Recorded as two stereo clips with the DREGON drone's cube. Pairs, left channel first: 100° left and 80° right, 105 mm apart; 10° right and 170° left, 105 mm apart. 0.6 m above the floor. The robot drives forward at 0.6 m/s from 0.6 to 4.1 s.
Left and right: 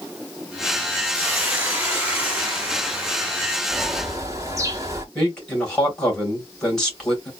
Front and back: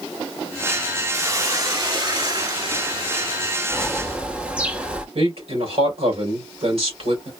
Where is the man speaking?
175° right, 2.5 m.